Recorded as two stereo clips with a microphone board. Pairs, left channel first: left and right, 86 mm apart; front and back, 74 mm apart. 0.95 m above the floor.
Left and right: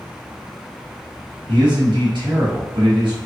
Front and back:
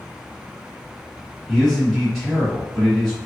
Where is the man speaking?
95° right, 1.5 m.